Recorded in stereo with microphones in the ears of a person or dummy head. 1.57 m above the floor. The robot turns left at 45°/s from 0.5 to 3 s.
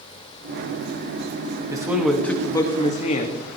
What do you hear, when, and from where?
1.7 s a man speaking: 160° right, 1.9 m; by 3.4 s 140° left, 1.9 m